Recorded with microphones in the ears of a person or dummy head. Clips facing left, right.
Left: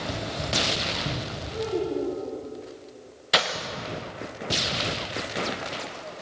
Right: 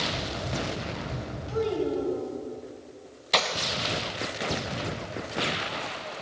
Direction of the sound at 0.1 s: 70° left (ahead or behind).